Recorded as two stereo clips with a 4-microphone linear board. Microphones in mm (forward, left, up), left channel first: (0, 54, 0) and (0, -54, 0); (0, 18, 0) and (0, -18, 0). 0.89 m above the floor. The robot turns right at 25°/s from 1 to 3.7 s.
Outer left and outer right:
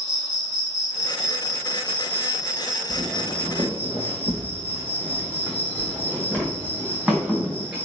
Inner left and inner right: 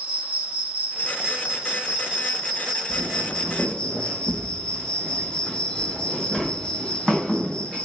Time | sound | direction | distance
0.0 | an insect | 45° right | 1.0 m
2.9 | footsteps | 60° right (ahead or behind) | 1.6 m